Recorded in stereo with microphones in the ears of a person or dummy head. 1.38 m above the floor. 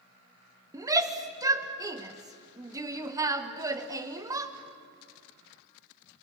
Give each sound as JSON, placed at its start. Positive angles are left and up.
{"t": 0.7, "sound": "a shout", "side_deg": -20, "distance_m": 1.3}